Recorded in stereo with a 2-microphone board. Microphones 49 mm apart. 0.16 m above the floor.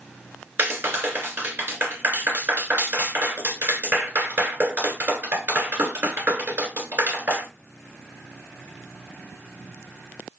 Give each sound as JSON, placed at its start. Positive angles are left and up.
{"t": 0.6, "sound": "a clap", "side_deg": -40, "distance_m": 1.7}